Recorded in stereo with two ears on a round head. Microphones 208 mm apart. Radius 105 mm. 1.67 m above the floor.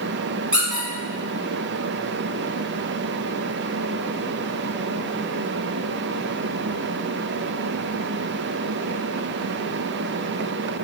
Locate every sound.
0.5 s a squeak: 5° right (ahead or behind), 1.0 m